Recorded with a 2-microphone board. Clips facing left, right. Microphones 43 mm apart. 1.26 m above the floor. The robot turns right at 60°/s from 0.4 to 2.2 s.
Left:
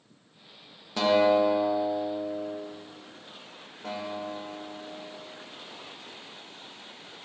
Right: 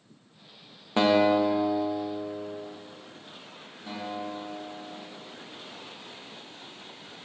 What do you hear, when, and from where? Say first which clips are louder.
1.0 s a guitar: even; 35° right, 1.0 m; by 2.6 s 40° left, 1.0 m
3.8 s a guitar: left 1 dB; 85° left, 3 m